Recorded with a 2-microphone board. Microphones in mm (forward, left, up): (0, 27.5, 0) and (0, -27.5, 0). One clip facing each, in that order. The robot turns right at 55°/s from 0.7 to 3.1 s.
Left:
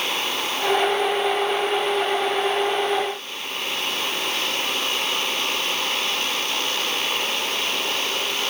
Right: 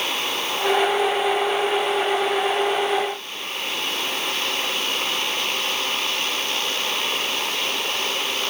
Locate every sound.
Only background noise.